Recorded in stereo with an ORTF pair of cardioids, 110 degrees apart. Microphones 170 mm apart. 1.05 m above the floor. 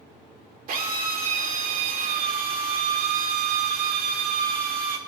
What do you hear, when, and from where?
0.7 s a drill: 55° right, 2.5 m